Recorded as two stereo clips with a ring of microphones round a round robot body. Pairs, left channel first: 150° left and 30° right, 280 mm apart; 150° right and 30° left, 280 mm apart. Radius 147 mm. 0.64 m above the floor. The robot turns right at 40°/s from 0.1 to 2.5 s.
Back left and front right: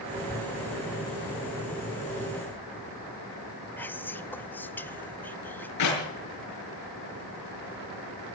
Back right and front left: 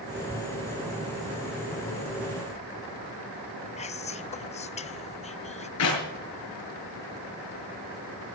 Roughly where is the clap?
Behind.